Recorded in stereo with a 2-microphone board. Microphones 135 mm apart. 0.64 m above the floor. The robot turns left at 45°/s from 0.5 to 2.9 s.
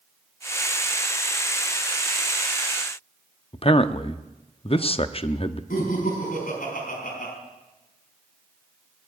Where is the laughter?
85° left, 5 m.